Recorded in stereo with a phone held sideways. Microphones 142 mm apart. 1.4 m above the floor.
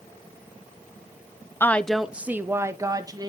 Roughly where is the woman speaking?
Centre.